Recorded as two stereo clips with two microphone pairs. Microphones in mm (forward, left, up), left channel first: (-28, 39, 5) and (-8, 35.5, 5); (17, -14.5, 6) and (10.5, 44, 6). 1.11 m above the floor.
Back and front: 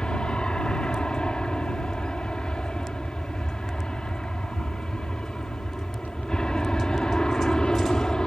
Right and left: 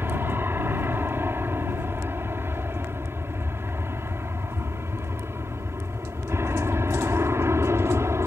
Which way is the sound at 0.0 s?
145° left.